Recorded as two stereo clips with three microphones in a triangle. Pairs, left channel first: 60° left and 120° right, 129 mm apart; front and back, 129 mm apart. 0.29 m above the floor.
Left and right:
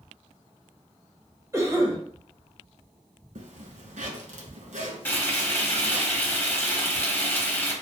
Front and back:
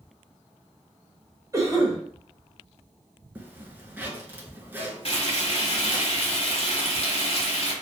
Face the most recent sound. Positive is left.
turn(degrees=-10)